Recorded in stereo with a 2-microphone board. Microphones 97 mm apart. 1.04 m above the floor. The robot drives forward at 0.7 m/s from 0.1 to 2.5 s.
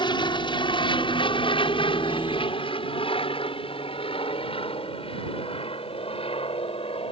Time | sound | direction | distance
0.0 | an aircraft | 55° left (ahead or behind) | ?